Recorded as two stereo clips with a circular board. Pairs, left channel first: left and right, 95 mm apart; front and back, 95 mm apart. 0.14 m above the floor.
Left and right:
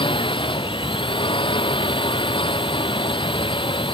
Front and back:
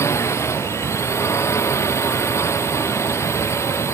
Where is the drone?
60° left.